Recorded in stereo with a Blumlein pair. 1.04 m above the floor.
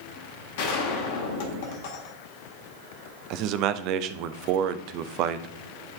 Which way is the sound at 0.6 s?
50° left.